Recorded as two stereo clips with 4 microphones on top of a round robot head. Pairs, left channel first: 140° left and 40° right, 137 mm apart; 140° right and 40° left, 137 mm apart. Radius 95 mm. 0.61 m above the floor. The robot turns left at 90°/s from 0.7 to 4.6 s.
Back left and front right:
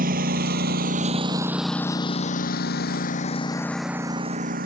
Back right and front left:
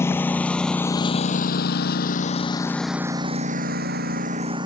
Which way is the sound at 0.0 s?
65° right.